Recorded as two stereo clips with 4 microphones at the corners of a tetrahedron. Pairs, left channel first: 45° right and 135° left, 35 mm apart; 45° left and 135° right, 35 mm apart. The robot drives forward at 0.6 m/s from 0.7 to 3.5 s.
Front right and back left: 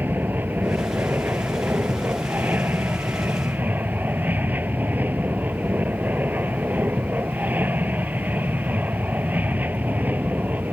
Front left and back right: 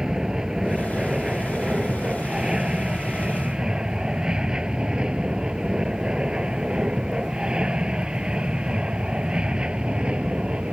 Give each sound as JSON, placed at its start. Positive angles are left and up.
{"t": 0.0, "sound": "an aircraft", "azimuth_deg": 155}